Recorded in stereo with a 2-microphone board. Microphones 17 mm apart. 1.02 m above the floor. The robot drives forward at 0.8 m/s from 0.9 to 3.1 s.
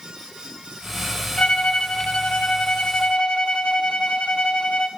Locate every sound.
1.4 s a violin: 85° left, 4.5 m; by 4.9 s 65° left (ahead or behind), 5 m